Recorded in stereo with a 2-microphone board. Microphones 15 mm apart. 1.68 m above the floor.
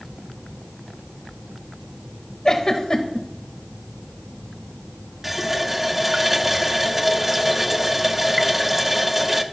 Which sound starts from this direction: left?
A giggle, at 2.5 s.